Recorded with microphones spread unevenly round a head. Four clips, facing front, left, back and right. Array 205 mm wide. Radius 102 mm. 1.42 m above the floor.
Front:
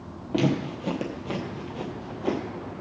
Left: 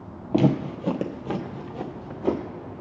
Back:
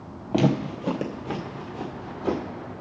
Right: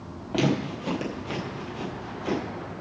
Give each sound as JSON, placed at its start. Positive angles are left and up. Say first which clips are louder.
{"t": 0.3, "sound": "footsteps", "louder": "left 4 dB, back 2 dB", "azimuth_deg": 125, "distance_m": 1.6}